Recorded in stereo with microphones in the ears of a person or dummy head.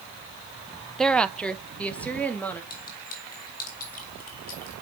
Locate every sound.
1.0 s a woman speaking: 5° left (ahead or behind), 0.6 m; by 2.6 s 10° left (ahead or behind), 1.9 m
2.7 s a clink: 50° left (ahead or behind), 5 m